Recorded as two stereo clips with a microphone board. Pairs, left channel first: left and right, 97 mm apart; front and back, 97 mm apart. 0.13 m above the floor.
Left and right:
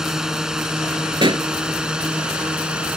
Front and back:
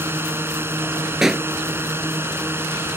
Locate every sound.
0.0 s a drone: 165° right; by 3.0 s 160° right
1.2 s a pop: 95° right